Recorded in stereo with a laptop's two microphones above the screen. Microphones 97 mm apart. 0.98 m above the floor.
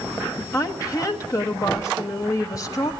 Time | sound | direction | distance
0.5 | a woman speaking | 35° left (ahead or behind) | 0.8 m